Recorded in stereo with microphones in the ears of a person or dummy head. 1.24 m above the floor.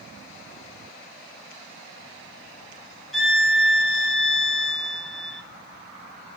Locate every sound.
3.1 s a violin: centre (ahead or behind), 3 m